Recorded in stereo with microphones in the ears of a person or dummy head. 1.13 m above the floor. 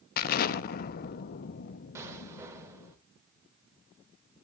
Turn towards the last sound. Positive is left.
turn(degrees=-10)  # may be behind; listen again after turning